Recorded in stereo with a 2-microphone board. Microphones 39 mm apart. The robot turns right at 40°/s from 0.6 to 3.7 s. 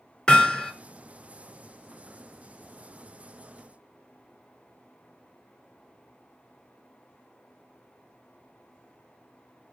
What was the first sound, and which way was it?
Hammering, 25° left (ahead or behind).